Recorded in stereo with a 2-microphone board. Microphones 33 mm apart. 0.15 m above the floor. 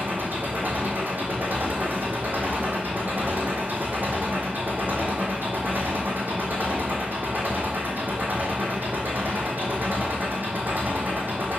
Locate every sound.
0.0 s an engine running: 65° right (ahead or behind), 1.8 m